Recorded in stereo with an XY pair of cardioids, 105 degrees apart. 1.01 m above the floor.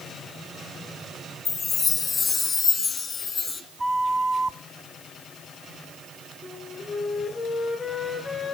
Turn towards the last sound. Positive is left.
turn(degrees=25)